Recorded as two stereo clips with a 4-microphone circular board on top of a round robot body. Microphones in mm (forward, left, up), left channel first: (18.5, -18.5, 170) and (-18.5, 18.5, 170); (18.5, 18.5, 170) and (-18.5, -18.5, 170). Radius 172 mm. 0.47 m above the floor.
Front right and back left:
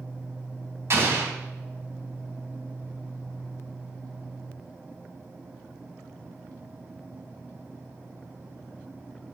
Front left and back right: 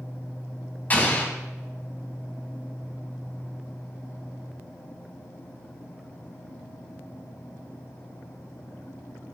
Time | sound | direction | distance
0.9 | an explosion | 105° left | 3 m